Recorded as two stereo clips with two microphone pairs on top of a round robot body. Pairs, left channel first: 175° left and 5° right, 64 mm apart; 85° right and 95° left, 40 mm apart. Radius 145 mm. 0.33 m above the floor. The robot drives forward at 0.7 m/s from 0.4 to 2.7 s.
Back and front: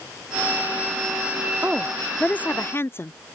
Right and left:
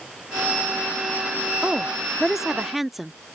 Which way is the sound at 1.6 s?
20° left.